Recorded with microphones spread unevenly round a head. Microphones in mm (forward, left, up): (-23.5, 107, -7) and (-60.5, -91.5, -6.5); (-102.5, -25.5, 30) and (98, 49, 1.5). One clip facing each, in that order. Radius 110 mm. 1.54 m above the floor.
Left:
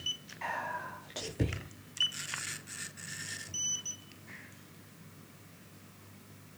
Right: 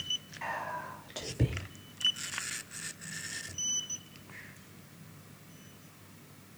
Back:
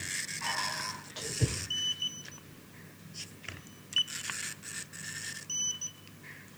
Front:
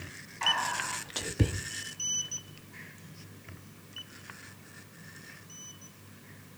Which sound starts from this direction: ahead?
Whispering, at 0.4 s.